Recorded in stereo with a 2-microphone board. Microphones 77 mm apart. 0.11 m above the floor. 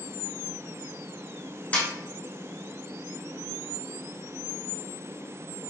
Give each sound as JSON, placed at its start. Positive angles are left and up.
{"t": 1.7, "sound": "a snare drum", "side_deg": 20, "distance_m": 0.9}